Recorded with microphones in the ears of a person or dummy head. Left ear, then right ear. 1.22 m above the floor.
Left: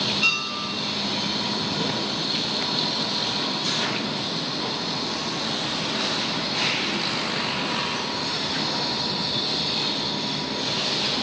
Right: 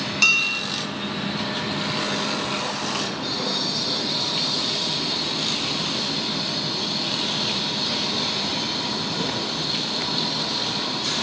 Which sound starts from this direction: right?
Dishes clattering, at 0.2 s.